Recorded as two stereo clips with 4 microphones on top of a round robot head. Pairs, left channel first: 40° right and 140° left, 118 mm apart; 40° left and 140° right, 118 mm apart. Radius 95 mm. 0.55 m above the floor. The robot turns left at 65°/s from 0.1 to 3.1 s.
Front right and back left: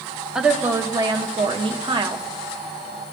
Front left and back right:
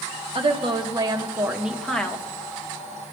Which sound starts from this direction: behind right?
A woman speaking, at 0.3 s.